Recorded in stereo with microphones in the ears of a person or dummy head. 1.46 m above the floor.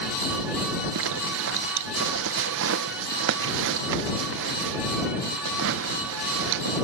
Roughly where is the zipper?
Right.